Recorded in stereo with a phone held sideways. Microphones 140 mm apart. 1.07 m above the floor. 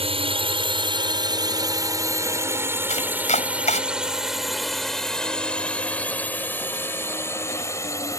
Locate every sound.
0.0 s a drone: 45° right (ahead or behind); by 8.2 s 20° left (ahead or behind)
2.9 s chopping: 55° left (ahead or behind)